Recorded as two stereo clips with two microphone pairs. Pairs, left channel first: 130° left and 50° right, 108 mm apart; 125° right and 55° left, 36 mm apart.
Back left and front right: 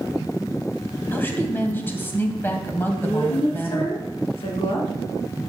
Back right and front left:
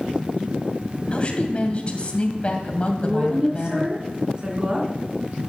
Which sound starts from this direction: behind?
A woman speaking, at 1.1 s.